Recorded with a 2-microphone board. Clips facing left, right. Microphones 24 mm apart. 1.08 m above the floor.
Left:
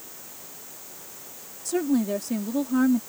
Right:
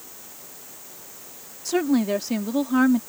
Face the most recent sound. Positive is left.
turn(degrees=-45)  # may be behind; listen again after turning